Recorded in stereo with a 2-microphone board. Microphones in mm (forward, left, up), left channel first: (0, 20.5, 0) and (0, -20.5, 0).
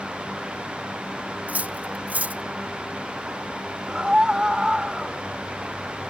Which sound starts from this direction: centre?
A scream, at 3.9 s.